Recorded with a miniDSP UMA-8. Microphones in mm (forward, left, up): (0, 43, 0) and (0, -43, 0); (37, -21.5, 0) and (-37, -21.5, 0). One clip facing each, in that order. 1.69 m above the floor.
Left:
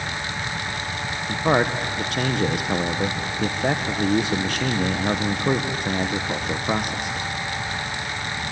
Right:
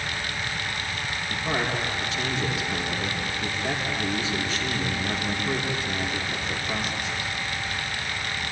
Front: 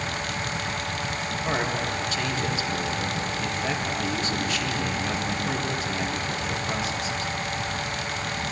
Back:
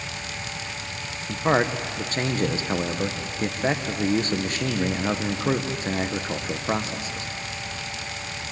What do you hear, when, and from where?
1.3 s a man speaking: 125° left, 1.3 m